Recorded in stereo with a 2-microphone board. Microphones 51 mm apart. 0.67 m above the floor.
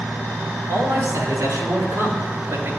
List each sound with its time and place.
0.7 s a man speaking: 85° right, 6 m; by 2.7 s 80° right, 4 m